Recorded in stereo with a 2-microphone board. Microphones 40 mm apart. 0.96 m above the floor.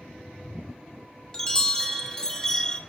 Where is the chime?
20° left (ahead or behind), 1.2 m.